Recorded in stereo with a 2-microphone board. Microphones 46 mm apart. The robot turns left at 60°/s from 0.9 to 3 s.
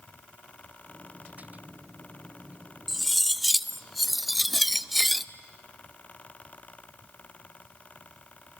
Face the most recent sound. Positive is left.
turn(degrees=0)  # may be behind; listen again after turning